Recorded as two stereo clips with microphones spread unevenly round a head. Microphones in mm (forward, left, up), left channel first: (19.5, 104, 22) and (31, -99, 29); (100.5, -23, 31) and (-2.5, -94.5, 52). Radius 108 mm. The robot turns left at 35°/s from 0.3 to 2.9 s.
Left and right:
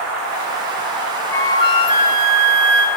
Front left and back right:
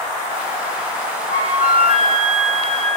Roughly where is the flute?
Behind.